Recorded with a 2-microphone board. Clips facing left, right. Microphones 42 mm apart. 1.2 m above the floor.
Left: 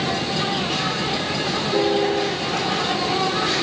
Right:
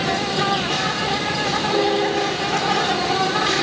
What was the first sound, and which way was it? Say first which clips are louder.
An insect: right 2 dB; 60° right (ahead or behind).